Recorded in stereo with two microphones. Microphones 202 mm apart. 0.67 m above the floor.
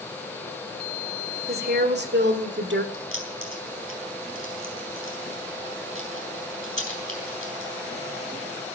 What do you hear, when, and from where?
1.5 s a woman speaking: 45° right (ahead or behind), 1.9 m; by 2.8 s 60° right (ahead or behind), 1.5 m
2.9 s keys jangling: 80° right, 4 m